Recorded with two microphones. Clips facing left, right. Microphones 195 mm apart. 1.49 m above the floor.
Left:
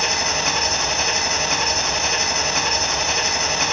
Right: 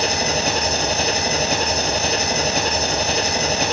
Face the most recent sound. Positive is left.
turn(degrees=-35)  # may be behind; listen again after turning